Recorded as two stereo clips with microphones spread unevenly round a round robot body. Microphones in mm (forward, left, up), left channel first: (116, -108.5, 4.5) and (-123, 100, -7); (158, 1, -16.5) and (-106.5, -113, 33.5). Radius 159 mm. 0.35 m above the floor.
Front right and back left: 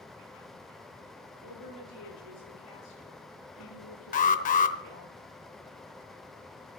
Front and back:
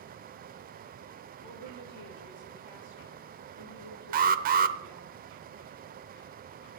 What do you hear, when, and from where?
1.4 s a woman speaking: 5° right, 7.5 m; by 5.1 s 10° left, 7 m
4.1 s an alarm: 100° right, 0.9 m